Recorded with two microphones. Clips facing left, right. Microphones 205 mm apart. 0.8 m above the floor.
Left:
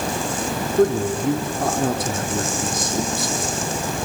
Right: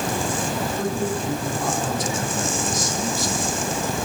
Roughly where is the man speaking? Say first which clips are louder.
Left 11 dB; left.